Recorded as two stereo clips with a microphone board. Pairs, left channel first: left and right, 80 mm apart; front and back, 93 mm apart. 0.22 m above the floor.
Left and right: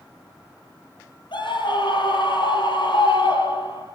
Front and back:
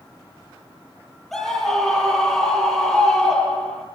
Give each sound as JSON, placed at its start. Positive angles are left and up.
{"t": 1.3, "sound": "a scream", "azimuth_deg": 90, "distance_m": 7.0}